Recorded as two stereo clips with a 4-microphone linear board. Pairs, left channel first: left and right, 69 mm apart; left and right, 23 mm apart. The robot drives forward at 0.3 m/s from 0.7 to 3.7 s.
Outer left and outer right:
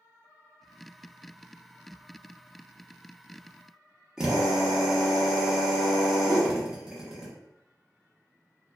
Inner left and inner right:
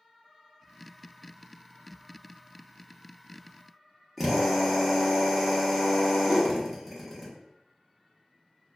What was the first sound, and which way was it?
A drill, 10° right (ahead or behind).